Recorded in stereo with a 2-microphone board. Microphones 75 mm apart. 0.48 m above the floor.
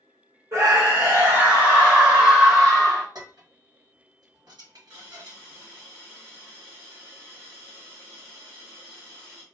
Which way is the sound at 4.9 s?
30° right (ahead or behind).